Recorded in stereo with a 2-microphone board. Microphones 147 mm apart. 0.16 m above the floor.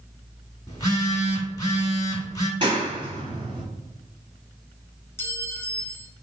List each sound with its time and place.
0.7 s a phone buzzing: 25° left (ahead or behind), 0.8 m
2.6 s a clap: 35° right (ahead or behind), 1.7 m
5.2 s a clink: 15° left (ahead or behind), 0.6 m